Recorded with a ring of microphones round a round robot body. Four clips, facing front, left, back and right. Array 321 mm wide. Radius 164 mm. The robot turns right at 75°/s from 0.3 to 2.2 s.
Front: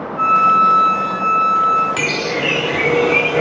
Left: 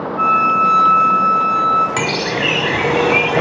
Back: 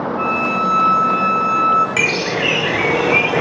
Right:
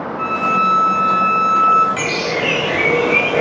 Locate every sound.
0.2 s a violin: 110° left, 1.5 m; by 1.9 s 135° right, 1.5 m
2.0 s a bird: 100° left, 1.2 m; by 3.4 s 115° left, 1.2 m